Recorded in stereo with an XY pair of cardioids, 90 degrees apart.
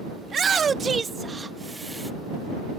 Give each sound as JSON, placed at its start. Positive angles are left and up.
{"t": 0.2, "sound": "a shout", "azimuth_deg": -50}